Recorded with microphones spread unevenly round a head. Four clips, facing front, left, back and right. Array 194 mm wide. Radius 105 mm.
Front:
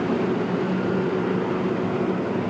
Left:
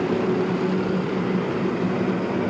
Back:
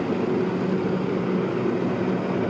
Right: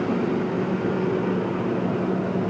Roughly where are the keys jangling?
No keys jangling in this recording.